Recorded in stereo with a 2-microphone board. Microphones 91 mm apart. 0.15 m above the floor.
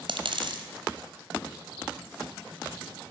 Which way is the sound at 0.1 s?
75° right (ahead or behind).